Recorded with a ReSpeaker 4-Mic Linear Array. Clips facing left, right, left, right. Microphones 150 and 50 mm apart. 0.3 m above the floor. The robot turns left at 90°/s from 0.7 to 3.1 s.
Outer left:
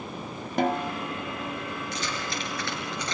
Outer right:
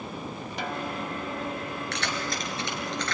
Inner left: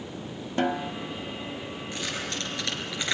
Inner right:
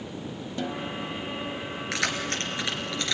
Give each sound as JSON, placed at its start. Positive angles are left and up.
{"t": 0.6, "sound": "a snare drum", "side_deg": 50, "distance_m": 0.8}
{"t": 1.9, "sound": "keys jangling", "side_deg": -80, "distance_m": 3.5}